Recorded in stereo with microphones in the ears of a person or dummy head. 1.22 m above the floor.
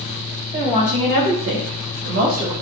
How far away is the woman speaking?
About 1.0 m.